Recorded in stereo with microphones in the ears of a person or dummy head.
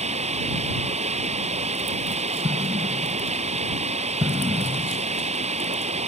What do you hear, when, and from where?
0.0 s running water: 35° right (ahead or behind)
2.4 s an explosion: 15° right (ahead or behind)